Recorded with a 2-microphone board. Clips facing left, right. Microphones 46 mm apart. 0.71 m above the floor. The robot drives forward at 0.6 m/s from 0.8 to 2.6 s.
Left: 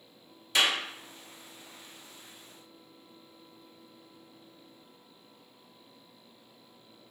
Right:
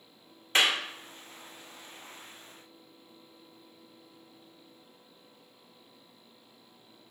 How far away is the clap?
About 1.3 m.